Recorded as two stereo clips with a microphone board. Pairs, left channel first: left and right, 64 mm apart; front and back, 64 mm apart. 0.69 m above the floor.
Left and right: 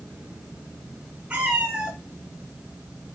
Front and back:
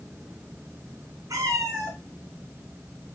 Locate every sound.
1.3 s a cat meowing: 160° right, 1.4 m